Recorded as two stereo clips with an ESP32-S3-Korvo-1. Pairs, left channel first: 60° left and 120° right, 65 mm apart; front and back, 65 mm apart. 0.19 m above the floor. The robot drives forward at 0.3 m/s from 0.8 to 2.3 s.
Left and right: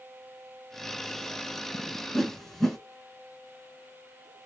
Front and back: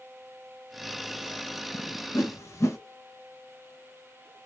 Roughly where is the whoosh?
Ahead.